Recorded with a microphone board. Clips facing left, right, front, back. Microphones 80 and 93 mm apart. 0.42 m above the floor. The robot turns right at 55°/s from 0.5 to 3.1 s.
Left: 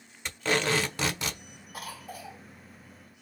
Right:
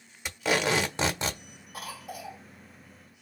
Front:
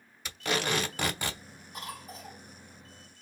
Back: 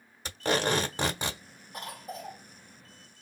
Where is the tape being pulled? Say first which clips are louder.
Right 1 dB, back 3 dB; 165° right, 1.1 m; by 1.4 s 115° right, 1.1 m.